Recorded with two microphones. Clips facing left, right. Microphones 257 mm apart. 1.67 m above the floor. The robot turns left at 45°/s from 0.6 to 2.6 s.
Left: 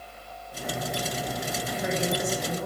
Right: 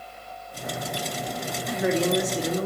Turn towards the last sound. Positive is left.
turn(degrees=-105)